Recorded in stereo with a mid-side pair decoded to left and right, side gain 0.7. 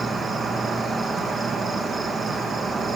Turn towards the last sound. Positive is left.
turn(degrees=-25)